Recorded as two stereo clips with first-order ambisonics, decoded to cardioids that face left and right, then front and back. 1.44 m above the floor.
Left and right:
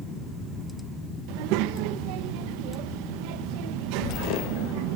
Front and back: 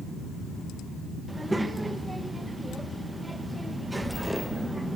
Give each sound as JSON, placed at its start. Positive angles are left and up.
{"t": 1.3, "sound": "a child speaking", "azimuth_deg": -95, "distance_m": 1.2}